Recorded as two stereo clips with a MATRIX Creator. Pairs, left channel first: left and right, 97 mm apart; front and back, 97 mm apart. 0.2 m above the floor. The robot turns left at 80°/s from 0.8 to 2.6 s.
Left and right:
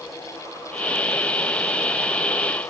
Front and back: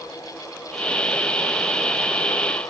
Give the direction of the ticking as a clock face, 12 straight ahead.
No ticking in this recording.